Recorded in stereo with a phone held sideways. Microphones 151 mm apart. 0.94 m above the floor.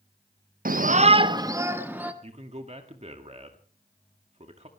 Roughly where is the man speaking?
Right.